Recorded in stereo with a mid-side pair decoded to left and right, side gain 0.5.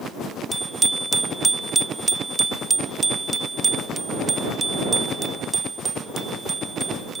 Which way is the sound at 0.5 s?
15° right.